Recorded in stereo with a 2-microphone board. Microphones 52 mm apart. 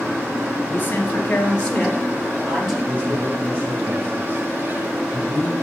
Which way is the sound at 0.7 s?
35° left (ahead or behind).